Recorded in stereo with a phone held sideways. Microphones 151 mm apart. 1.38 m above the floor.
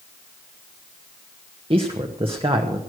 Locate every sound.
1.7 s a man speaking: 40° right (ahead or behind), 1.0 m